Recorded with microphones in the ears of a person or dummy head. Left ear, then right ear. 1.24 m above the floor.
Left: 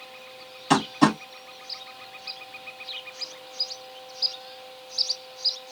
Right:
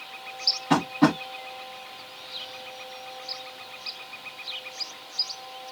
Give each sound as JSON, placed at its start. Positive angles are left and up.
{"t": 0.7, "sound": "tapping", "side_deg": 85, "distance_m": 1.8}